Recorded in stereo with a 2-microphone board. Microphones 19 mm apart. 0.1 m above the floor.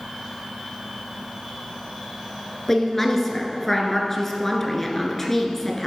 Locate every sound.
2.7 s a woman speaking: 15° left (ahead or behind), 1.2 m